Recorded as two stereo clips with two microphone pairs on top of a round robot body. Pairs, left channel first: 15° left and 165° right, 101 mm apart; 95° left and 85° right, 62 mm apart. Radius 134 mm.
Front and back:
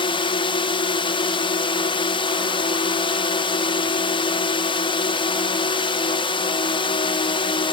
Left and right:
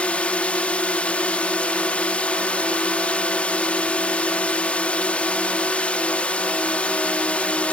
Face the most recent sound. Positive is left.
turn(degrees=25)